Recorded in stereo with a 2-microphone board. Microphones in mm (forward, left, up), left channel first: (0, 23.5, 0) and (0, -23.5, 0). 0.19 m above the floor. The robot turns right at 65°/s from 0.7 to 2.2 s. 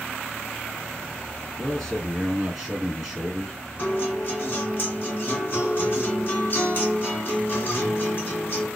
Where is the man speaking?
15° left (ahead or behind), 1.6 m; by 3.5 s centre (ahead or behind), 1.6 m.